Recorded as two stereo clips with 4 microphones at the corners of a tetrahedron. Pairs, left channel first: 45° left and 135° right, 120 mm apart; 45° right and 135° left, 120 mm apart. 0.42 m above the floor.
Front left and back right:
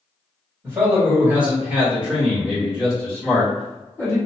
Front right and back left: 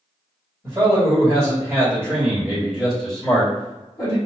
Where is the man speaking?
170° left, 1.8 m; by 4.2 s straight ahead, 1.5 m.